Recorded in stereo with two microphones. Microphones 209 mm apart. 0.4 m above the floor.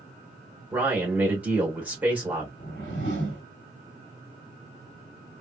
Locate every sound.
0.7 s a man speaking: 5° right (ahead or behind), 1.3 m
2.6 s a whoosh: 60° left (ahead or behind), 1.4 m